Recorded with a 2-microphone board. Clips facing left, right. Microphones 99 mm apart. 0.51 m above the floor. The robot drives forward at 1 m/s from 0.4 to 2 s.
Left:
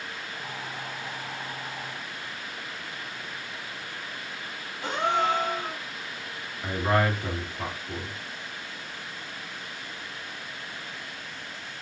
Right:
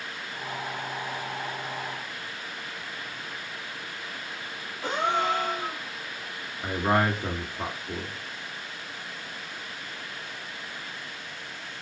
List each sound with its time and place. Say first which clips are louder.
4.8 s a gasp: left 1 dB; 5° right (ahead or behind), 1.2 m
6.6 s a man speaking: even; 20° right (ahead or behind), 1.0 m